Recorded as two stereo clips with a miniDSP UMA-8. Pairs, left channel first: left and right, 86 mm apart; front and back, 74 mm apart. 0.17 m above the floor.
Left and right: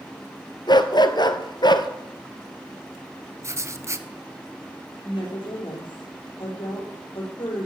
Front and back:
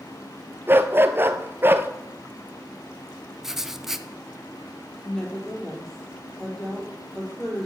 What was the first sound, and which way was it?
A dog barking, 120° left.